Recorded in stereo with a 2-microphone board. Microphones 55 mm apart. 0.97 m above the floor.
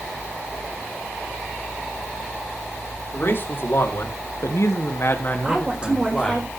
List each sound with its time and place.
3.1 s a man speaking: 45° left (ahead or behind), 3 m; by 6.5 s 10° left (ahead or behind), 3 m
5.5 s a woman speaking: 25° right (ahead or behind), 4 m